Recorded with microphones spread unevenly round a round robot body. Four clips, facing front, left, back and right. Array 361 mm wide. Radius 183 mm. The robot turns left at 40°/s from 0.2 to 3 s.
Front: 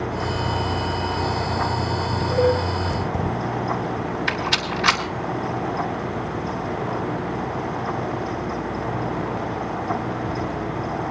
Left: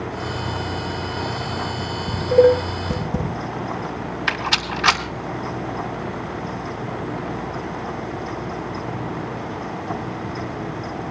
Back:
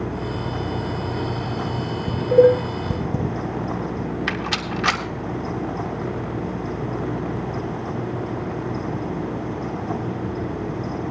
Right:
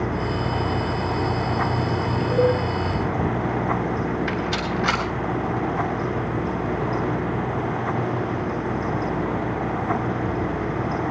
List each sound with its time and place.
2.1 s dishes clattering: straight behind, 5 m; by 3.3 s 145° left, 5 m
4.3 s a rattle: 130° left, 3 m